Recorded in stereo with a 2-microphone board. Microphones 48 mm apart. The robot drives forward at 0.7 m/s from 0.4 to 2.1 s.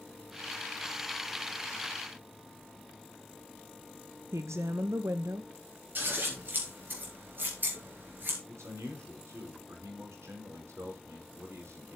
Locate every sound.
4.3 s a woman speaking: 85° right, 0.7 m
6.0 s scissors: 45° right (ahead or behind), 4.5 m
8.5 s a man speaking: 75° right (ahead or behind), 4.5 m